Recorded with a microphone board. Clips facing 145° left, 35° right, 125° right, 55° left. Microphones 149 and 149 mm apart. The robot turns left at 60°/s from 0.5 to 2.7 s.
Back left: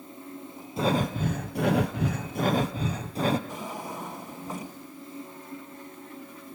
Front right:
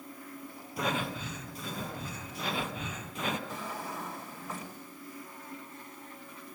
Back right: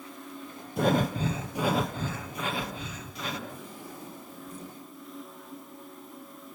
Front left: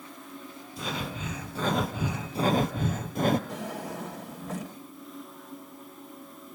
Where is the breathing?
150° right, 1.9 m; by 3.4 s 90° left, 1.9 m.